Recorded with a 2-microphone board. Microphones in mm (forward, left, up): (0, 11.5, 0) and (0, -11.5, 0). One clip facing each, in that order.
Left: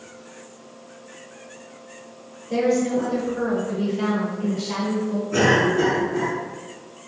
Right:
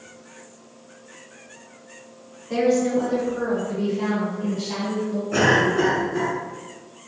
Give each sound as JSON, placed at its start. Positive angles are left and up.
{"t": 2.5, "sound": "a woman speaking", "side_deg": -30, "distance_m": 1.2}
{"t": 5.3, "sound": "a cough", "side_deg": -40, "distance_m": 1.7}